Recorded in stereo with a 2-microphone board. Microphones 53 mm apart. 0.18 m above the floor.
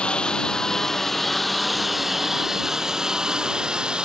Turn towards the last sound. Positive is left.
turn(degrees=-15)  # may be behind; listen again after turning